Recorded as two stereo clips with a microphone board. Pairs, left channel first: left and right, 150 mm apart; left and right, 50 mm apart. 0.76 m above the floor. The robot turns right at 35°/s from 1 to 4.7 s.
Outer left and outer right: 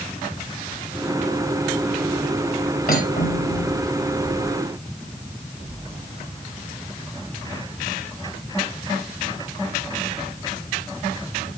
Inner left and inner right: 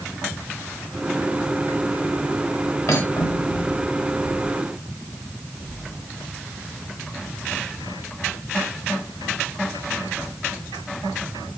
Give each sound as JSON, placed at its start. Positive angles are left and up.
{"t": 2.9, "sound": "cutlery clinking", "azimuth_deg": 70, "distance_m": 2.5}